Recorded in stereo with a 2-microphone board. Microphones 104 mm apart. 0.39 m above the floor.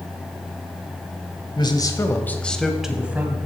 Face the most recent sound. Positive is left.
turn(degrees=-20)  # may be behind; listen again after turning